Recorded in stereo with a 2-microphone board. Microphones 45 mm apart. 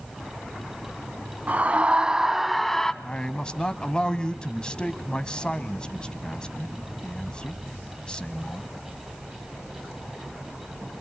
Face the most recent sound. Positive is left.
turn(degrees=20)  # may be behind; listen again after turning